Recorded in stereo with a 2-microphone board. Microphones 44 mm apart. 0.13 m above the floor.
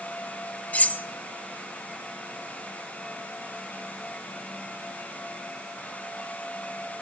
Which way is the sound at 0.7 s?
35° left (ahead or behind).